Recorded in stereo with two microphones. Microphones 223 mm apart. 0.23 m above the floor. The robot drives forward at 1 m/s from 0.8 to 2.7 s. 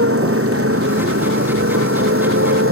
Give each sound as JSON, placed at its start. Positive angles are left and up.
{"t": 0.0, "sound": "a motorcycle", "side_deg": -80}